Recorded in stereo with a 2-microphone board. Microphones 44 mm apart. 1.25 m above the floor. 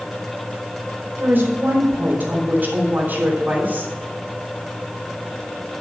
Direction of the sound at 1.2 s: 45° right (ahead or behind).